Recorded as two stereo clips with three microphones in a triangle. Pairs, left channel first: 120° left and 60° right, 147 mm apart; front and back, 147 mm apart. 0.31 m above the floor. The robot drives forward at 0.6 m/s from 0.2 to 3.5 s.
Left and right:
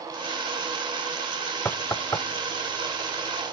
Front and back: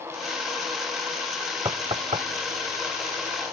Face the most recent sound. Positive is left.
turn(degrees=180)